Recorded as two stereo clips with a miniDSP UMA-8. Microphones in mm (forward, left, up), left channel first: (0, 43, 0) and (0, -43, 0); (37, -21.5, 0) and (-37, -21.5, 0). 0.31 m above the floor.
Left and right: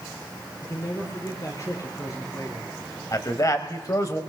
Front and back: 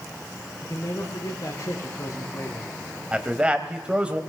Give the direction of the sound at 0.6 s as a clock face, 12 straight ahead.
11 o'clock.